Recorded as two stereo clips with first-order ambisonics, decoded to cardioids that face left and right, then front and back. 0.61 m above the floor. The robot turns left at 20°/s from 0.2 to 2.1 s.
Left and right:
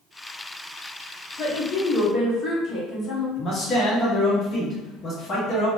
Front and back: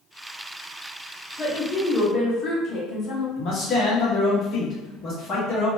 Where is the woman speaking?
55° left, 0.8 m; by 3.3 s 40° left, 0.8 m.